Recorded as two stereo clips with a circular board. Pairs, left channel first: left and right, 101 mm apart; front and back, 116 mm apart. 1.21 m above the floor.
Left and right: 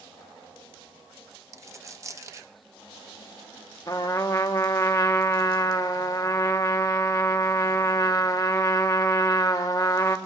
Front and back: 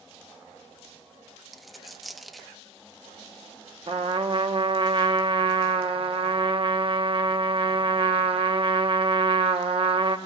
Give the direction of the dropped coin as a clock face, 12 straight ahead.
3 o'clock.